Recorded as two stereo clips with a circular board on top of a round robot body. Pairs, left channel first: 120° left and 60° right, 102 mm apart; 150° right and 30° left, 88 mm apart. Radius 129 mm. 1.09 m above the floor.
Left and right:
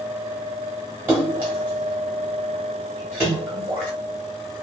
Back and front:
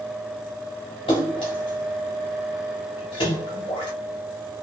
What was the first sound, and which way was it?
A splash, 130° right.